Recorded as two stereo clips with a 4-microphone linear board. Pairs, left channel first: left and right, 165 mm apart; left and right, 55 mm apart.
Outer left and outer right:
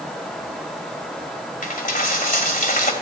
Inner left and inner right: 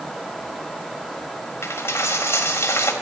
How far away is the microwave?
I don't hear a microwave.